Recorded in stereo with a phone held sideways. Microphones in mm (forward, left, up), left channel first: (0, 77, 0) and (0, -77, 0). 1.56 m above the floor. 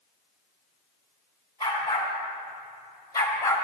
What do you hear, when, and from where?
1.6 s a dog barking: 30° left (ahead or behind), 4 m; by 3.6 s 20° left (ahead or behind), 2.0 m